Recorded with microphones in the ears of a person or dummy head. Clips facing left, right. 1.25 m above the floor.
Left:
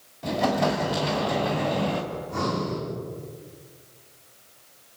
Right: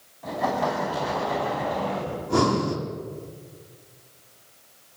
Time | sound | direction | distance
0.2 | an explosion | 40° left (ahead or behind) | 4 m
2.1 | breathing | 70° right (ahead or behind) | 4 m